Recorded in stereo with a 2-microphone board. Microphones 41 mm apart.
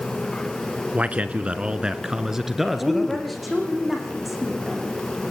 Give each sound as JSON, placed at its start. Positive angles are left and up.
{"t": 0.9, "sound": "a man speaking", "side_deg": -35, "distance_m": 1.8}
{"t": 2.8, "sound": "a woman speaking", "side_deg": -5, "distance_m": 8.0}